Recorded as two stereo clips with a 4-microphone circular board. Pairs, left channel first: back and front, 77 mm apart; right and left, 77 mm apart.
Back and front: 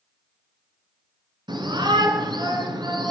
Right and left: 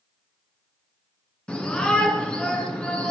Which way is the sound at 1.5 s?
15° right.